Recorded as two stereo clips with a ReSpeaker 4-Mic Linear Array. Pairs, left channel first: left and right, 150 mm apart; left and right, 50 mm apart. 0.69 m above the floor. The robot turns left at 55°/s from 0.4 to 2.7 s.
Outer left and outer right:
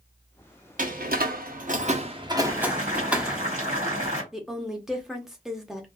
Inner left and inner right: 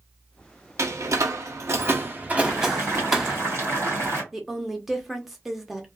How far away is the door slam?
About 0.7 m.